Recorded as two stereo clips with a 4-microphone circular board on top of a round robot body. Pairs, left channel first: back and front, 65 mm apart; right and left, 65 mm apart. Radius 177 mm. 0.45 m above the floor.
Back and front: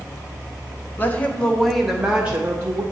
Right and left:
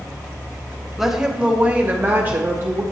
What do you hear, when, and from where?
1.0 s a woman speaking: 175° left, 1.1 m; by 2.8 s 45° left, 1.4 m